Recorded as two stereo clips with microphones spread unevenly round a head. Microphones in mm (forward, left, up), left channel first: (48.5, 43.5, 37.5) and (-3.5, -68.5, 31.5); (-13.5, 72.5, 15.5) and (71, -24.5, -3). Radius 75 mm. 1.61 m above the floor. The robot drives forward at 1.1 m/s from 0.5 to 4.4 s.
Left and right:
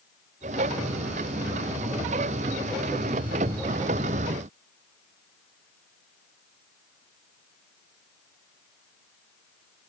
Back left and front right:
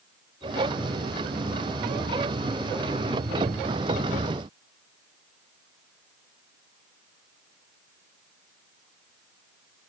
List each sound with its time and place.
Only background noise.